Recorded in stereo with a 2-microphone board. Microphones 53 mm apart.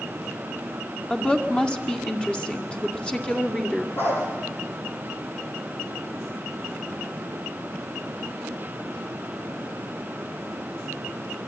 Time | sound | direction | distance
1.1 | a woman speaking | 20° left (ahead or behind) | 2 m
4.0 | a dog barking | 45° left (ahead or behind) | 7 m